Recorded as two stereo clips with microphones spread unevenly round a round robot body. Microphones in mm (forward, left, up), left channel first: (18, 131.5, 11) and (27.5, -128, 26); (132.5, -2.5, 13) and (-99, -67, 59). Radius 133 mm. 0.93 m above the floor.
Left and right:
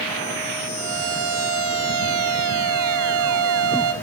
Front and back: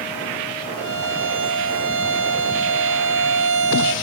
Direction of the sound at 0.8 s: 130° right.